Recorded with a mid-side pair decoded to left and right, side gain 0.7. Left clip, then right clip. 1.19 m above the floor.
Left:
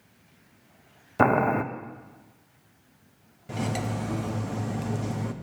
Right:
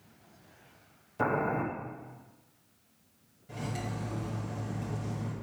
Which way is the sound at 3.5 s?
45° left.